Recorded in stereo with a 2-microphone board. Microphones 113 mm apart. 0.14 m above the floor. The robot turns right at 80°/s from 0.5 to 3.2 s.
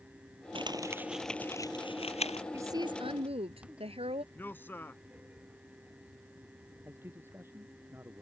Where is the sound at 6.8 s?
20° right (ahead or behind).